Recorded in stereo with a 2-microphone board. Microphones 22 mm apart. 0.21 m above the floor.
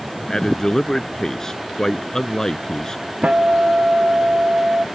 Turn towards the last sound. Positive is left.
turn(degrees=-80)